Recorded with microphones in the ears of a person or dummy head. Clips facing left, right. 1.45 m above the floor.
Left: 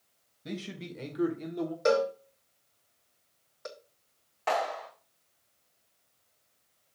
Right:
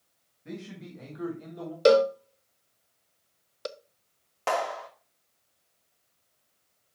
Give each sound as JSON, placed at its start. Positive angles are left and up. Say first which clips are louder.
{"t": 0.5, "sound": "a man speaking", "louder": "left 2 dB", "side_deg": 45, "distance_m": 1.7}
{"t": 1.9, "sound": "a cowbell", "louder": "right 7 dB", "side_deg": -45, "distance_m": 0.7}
{"t": 4.5, "sound": "a clap", "louder": "right 1 dB", "side_deg": -45, "distance_m": 1.7}